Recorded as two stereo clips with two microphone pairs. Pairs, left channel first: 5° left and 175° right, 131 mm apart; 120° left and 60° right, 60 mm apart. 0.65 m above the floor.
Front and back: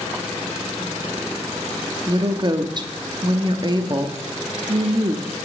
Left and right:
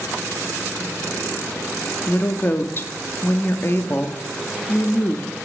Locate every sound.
2.1 s a woman speaking: 150° left, 0.8 m